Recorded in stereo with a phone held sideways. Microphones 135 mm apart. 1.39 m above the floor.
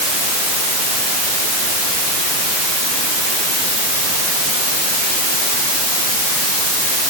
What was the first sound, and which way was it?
Only background noise.